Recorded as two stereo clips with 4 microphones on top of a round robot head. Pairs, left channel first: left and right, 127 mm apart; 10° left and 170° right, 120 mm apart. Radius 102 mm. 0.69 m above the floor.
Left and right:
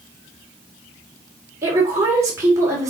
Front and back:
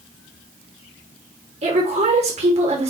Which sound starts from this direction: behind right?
A woman speaking, at 1.6 s.